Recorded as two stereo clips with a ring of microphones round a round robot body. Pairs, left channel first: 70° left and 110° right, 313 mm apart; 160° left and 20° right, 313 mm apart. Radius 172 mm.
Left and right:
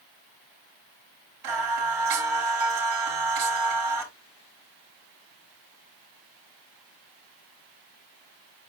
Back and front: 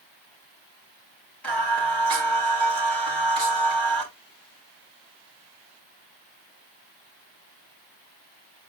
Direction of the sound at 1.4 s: 115° right.